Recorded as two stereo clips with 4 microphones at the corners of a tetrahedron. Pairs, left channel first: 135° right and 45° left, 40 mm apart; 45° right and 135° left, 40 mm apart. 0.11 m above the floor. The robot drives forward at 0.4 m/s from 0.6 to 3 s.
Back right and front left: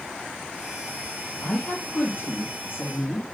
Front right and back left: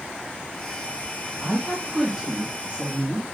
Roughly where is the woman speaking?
Behind right.